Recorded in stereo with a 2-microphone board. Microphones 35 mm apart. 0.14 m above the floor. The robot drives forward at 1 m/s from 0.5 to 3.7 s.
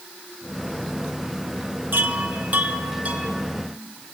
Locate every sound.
1.9 s a chime: 60° right (ahead or behind), 2.5 m; by 3.5 s 40° right (ahead or behind), 3.5 m